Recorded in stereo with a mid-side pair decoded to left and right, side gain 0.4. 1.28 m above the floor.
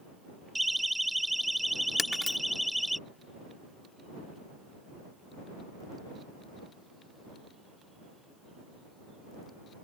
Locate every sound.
0.6 s a siren: 10° right; by 3.0 s straight ahead
2.0 s breaking glass: 30° left